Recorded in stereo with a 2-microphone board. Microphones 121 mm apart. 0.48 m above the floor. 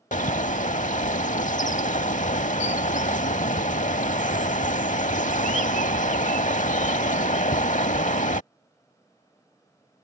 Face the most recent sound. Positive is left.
turn(degrees=80)